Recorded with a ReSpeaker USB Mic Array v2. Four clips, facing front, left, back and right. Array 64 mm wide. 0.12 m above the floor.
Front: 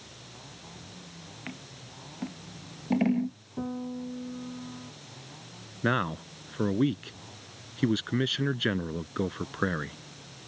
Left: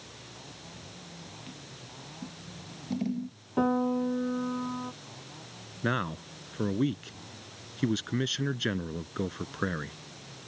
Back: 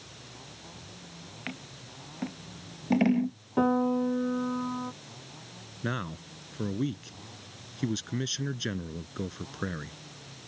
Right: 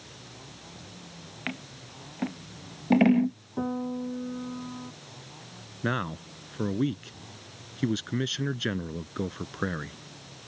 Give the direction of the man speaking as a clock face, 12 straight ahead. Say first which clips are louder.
Even, front 7 dB; 12 o'clock.